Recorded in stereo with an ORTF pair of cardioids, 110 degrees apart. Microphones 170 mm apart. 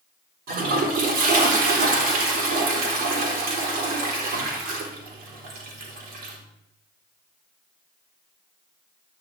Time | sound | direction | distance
0.5 | a toilet flushing | 65° right | 3.5 m